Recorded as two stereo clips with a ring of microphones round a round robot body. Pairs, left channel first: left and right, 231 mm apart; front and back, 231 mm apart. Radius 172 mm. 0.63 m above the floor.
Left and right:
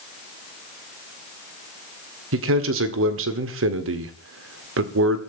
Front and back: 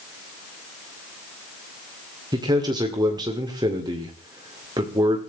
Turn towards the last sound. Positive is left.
turn(degrees=-105)